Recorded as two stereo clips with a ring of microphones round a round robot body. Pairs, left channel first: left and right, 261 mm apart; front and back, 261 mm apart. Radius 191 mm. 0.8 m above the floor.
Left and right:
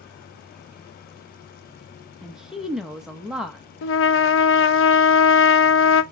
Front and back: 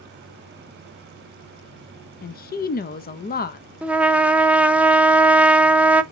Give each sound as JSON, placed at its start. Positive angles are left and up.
{"t": 2.2, "sound": "a woman speaking", "azimuth_deg": 0, "distance_m": 0.5}
{"t": 3.8, "sound": "a trumpet", "azimuth_deg": 95, "distance_m": 0.7}